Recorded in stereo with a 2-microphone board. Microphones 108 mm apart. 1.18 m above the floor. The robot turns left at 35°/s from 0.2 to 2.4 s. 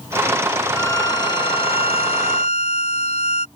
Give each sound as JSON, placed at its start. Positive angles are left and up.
{"t": 0.7, "sound": "a violin", "azimuth_deg": 155}